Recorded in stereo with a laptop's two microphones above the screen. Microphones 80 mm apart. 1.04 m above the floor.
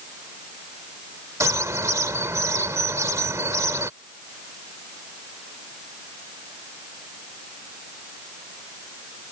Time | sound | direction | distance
1.4 | a bird | 40° right (ahead or behind) | ?